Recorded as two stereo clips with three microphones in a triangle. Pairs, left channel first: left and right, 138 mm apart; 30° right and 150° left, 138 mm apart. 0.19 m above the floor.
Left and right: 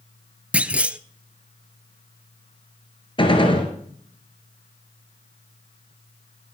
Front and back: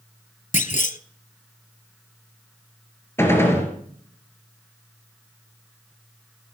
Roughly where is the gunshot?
Ahead left.